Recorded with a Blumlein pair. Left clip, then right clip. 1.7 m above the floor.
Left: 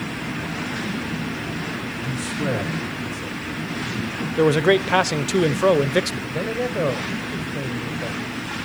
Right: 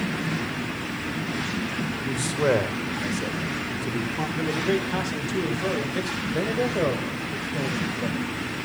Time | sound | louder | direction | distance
2.0 | a man speaking | right 4 dB | 65° right | 3.5 m
4.4 | a man speaking | left 10 dB | 30° left | 1.0 m
6.3 | a man speaking | right 2 dB | straight ahead | 1.4 m